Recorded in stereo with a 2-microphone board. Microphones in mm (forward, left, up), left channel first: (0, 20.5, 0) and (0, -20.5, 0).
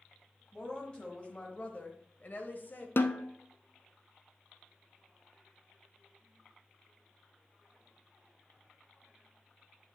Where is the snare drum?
60° left (ahead or behind), 0.7 m.